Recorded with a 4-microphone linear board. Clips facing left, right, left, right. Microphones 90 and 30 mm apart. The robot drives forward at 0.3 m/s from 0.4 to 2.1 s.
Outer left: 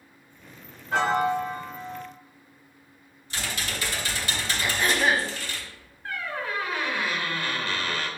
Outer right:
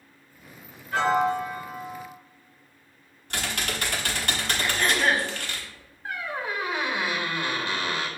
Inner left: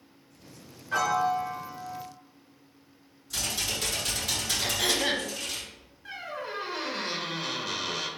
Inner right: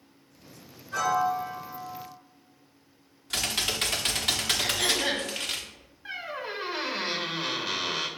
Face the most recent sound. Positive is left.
turn(degrees=-20)  # may be behind; listen again after turning